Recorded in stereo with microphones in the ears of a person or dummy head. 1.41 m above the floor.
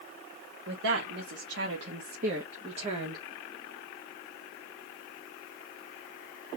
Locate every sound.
0.7 s a woman speaking: 80° right, 1.7 m; by 3.2 s 25° right (ahead or behind), 1.2 m